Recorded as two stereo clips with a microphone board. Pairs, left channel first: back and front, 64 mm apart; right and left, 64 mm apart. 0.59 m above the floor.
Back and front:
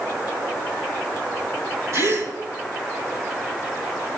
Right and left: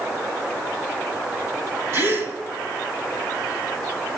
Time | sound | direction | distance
1.9 | a gasp | 40° left | 1.7 m